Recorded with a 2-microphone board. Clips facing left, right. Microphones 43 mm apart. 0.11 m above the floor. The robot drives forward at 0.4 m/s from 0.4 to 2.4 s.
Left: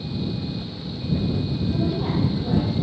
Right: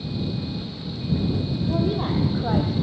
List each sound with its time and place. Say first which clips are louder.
1.7 s a woman speaking: right 2 dB; 40° right (ahead or behind), 4 m